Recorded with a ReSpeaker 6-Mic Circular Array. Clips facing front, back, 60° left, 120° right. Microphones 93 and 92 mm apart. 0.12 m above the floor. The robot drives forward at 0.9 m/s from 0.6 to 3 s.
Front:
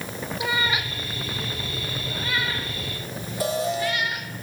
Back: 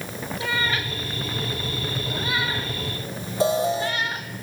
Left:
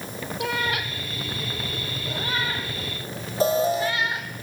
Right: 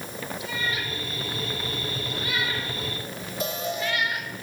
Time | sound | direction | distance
0.4 | a cat meowing | 75° left | 2.5 m
3.4 | an alarm | 115° left | 5.5 m